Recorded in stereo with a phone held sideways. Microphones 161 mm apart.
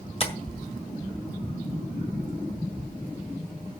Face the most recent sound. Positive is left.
turn(degrees=40)  # may be behind; listen again after turning